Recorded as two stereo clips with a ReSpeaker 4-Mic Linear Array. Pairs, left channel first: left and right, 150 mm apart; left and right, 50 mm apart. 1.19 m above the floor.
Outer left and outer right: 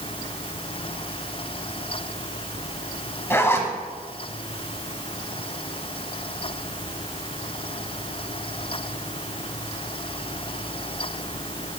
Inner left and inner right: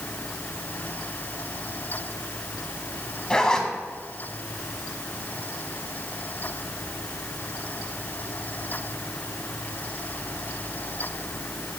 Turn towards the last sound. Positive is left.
turn(degrees=15)  # may be behind; listen again after turning